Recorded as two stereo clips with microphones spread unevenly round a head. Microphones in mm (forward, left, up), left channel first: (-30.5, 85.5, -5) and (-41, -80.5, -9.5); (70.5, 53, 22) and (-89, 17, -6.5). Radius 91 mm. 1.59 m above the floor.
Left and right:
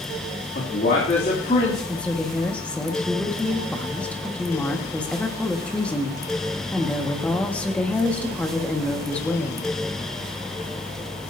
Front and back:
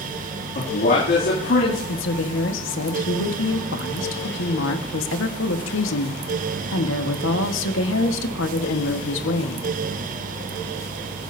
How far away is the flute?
No flute in this recording.